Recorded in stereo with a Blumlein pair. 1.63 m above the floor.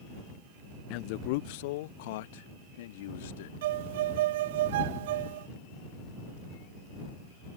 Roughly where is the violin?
Ahead right.